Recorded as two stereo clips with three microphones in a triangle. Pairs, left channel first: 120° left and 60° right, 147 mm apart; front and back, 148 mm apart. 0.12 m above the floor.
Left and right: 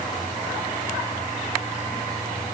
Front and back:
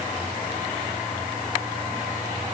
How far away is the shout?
No shout in this recording.